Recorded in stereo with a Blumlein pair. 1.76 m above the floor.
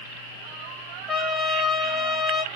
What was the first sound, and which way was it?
A trumpet, 5° left.